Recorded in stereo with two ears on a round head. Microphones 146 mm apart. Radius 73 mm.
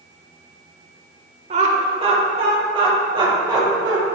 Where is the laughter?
45° right (ahead or behind), 1.2 m; by 4.0 s 25° right (ahead or behind), 2.5 m.